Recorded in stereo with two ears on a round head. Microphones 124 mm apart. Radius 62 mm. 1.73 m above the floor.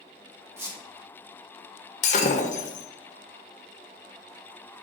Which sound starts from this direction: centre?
A squeak, at 0.6 s.